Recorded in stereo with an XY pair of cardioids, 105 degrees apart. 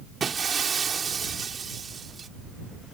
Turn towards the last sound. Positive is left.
turn(degrees=-40)